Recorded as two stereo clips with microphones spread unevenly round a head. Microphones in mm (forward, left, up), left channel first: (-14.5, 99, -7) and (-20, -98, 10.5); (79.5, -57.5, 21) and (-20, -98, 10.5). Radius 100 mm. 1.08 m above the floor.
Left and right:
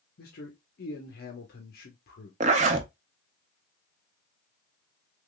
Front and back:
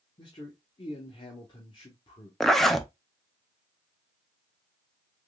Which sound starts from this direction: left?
A man speaking, at 0.2 s.